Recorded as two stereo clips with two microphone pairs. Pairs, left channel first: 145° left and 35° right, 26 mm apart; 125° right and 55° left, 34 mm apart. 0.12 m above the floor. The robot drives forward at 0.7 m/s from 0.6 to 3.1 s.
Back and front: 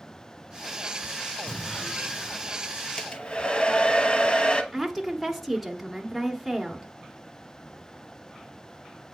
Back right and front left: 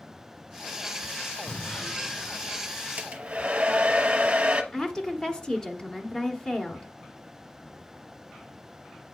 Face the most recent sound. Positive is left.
turn(degrees=-130)